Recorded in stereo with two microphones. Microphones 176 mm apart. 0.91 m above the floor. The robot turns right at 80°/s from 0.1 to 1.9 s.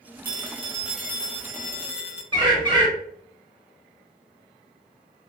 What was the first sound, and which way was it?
A phone ringing, 60° right.